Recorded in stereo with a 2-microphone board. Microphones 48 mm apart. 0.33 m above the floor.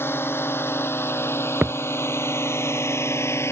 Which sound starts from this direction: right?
A thud, at 1.6 s.